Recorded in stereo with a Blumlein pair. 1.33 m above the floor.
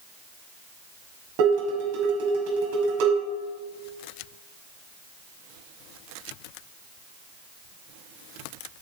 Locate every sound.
1.4 s dishes clattering: 50° right, 5.5 m